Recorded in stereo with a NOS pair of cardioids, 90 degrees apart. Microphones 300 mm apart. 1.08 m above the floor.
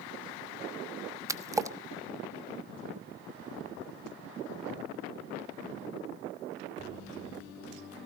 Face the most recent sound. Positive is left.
turn(degrees=-10)